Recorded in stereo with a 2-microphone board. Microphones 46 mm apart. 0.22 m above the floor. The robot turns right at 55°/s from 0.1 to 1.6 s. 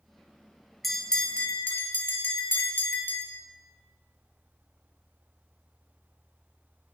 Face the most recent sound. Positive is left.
turn(degrees=45)